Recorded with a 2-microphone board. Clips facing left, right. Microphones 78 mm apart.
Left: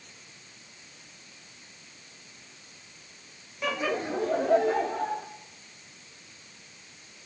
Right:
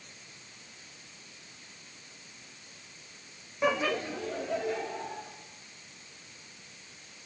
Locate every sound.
3.6 s laughter: 20° right (ahead or behind), 0.6 m; by 5.2 s 50° left (ahead or behind), 2.5 m